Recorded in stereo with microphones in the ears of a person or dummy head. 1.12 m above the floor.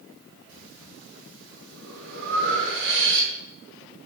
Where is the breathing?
70° right (ahead or behind), 7 m.